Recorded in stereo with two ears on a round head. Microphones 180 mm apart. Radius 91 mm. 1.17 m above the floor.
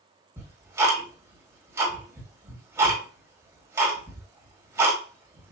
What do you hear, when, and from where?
0.4 s ticking: 15° right (ahead or behind), 1.7 m